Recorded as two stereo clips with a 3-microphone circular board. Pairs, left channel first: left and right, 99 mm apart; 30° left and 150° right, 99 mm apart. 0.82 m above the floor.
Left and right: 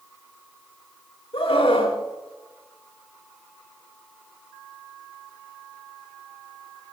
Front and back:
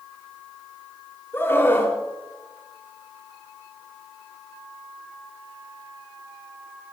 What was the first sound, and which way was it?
A scream, 95° left.